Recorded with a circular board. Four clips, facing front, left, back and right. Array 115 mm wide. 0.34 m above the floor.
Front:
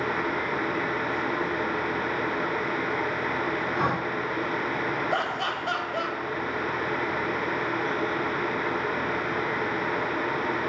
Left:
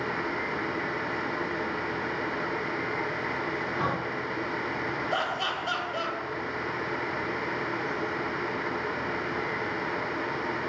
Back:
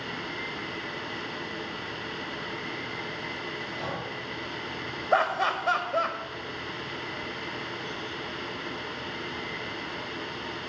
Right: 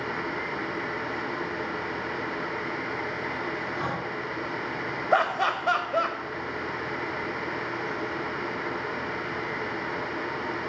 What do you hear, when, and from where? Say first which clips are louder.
3.8 s breathing: left 1 dB, front 8 dB; 10° left, 0.8 m
5.1 s laughter: right 10 dB, back 3 dB; 120° right, 1.4 m